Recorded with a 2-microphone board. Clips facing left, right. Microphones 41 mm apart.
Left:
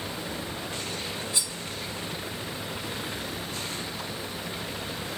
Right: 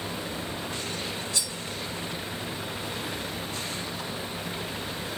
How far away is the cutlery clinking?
About 0.8 m.